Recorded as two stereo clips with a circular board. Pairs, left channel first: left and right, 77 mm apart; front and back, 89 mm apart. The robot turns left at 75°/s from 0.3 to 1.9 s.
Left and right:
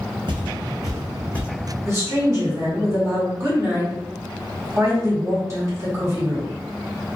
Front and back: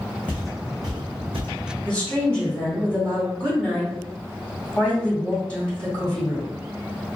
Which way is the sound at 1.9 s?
65° right.